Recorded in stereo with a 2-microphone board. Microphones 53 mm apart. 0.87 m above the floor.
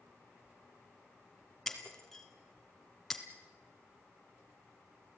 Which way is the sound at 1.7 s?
5° left (ahead or behind).